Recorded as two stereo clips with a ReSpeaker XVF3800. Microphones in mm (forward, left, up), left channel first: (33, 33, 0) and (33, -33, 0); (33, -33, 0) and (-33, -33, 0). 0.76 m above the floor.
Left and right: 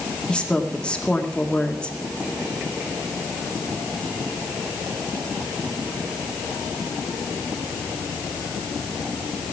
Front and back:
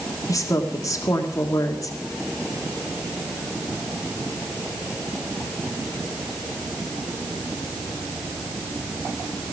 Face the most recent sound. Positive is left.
turn(degrees=15)